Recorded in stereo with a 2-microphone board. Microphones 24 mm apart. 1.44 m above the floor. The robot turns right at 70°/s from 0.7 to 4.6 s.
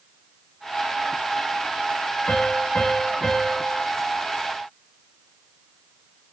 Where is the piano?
95° left, 2.5 m; by 3.8 s 160° right, 2.5 m.